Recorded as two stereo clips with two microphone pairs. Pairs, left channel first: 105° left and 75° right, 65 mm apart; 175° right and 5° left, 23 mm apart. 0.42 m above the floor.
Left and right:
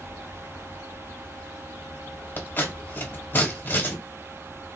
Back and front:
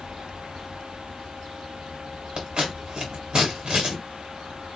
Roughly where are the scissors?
Ahead left.